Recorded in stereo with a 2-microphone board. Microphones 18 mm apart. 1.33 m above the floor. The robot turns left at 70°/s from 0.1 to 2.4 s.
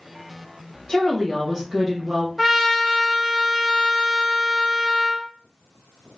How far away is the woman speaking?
About 1.2 m.